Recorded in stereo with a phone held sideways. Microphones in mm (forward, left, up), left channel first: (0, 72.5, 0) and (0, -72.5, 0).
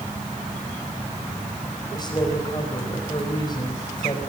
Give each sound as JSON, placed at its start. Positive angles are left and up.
{"t": 1.9, "sound": "a woman speaking", "side_deg": 30, "distance_m": 4.5}